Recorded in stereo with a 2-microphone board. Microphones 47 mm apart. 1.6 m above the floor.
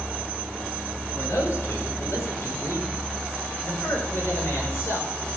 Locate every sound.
1.1 s a man speaking: 85° left, 5.5 m; by 5.4 s 60° left (ahead or behind), 6 m